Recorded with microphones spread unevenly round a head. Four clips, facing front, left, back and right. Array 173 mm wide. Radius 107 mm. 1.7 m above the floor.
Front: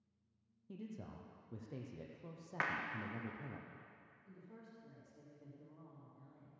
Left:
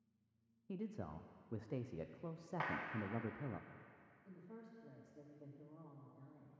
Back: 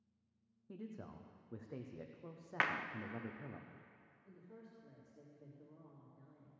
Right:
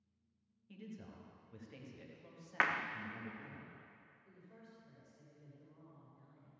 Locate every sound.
0.7 s a man speaking: 70° left, 0.7 m
2.6 s a clap: 115° right, 0.5 m
4.2 s a woman speaking: 80° left, 2.5 m